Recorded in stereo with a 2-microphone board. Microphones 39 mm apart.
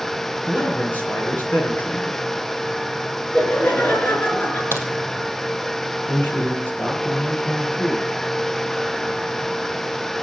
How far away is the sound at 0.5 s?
About 4.5 m.